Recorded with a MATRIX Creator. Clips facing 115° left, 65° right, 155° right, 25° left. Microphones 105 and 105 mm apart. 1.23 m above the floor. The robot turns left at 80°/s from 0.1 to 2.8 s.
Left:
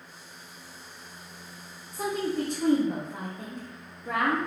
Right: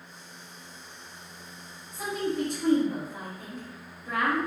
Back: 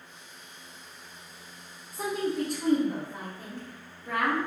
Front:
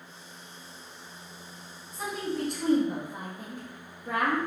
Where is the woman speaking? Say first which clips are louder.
Left 1 dB, back 3 dB; 160° left, 0.8 m; by 4.4 s 90° left, 0.8 m.